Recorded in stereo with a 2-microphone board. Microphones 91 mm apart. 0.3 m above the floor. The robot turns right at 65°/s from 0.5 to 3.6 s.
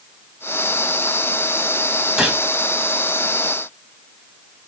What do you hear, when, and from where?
2.2 s a gunshot: 5° right (ahead or behind), 1.9 m; by 2.4 s 5° left (ahead or behind), 1.9 m